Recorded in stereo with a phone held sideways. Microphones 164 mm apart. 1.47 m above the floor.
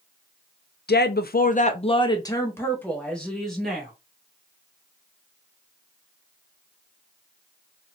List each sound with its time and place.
0.9 s a woman speaking: 80° left, 0.5 m; by 3.9 s centre (ahead or behind), 1.5 m